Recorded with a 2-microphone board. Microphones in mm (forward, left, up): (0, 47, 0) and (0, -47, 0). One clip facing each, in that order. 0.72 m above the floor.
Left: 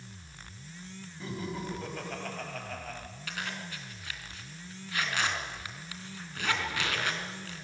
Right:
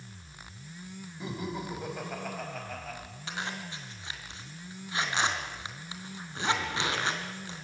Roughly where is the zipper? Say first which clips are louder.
Right 2 dB; right.